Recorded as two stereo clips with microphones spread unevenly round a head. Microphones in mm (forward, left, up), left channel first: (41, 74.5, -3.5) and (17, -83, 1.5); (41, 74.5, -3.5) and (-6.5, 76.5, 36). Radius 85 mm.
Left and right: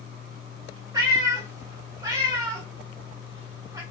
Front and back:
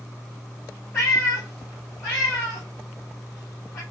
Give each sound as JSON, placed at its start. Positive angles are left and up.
{"t": 0.9, "sound": "a cat meowing", "azimuth_deg": -100, "distance_m": 1.0}